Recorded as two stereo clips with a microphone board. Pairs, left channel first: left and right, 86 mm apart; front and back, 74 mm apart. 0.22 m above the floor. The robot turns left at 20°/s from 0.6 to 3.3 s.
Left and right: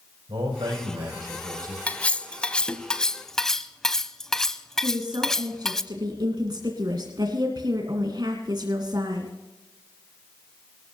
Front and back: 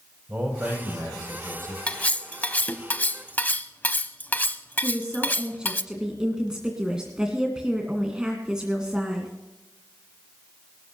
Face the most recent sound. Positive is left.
turn(degrees=-100)